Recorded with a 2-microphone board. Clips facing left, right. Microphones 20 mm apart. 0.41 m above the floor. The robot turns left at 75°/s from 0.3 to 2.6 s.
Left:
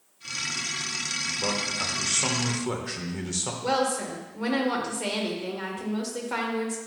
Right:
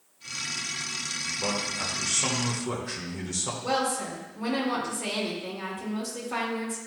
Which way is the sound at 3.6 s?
35° left (ahead or behind).